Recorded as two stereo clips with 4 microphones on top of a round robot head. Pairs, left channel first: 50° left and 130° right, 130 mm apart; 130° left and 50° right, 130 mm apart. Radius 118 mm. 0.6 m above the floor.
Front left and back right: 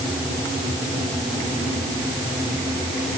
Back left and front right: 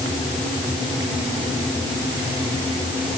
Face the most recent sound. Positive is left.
No sound to turn to.